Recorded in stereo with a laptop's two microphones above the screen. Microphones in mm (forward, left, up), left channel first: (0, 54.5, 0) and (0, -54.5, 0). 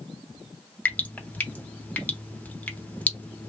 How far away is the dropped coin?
I don't hear a dropped coin.